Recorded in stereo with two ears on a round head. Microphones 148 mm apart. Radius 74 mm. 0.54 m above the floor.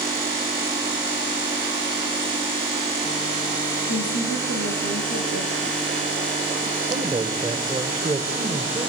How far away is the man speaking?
About 2 m.